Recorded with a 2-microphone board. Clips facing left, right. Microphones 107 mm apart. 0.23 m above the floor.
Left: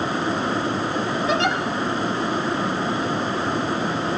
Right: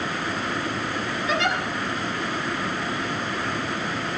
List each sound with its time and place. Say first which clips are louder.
1.3 s a giggle: left 2 dB; 30° left (ahead or behind), 1.2 m